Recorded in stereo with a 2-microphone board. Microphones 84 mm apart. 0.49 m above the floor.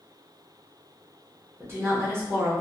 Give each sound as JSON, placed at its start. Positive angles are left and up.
{"t": 1.6, "sound": "a woman speaking", "side_deg": -30, "distance_m": 1.0}